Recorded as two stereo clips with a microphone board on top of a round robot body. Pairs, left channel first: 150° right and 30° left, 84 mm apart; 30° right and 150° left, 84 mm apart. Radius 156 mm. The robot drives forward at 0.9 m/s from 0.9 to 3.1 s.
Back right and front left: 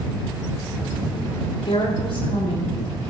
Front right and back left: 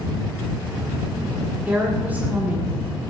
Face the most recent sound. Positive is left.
turn(degrees=-140)